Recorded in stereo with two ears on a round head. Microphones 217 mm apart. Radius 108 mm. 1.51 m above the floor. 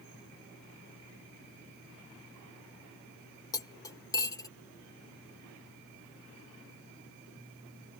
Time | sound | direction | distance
3.5 | cutlery clinking | 15° left (ahead or behind) | ?